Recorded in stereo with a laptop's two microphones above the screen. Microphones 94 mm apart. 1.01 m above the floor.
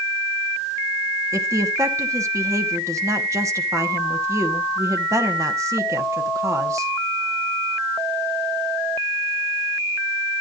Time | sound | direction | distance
1.3 | a woman speaking | 30° right (ahead or behind) | 1.0 m